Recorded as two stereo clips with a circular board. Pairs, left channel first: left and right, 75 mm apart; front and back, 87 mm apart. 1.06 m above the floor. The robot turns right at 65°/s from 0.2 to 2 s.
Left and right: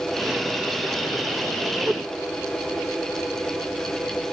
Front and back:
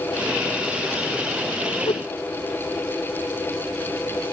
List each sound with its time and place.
1.9 s a whoosh: 10° right; by 2.1 s straight ahead